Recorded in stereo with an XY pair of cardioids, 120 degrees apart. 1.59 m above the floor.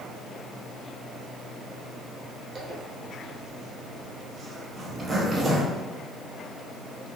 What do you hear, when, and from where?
2.5 s a zipper: 30° right, 0.7 m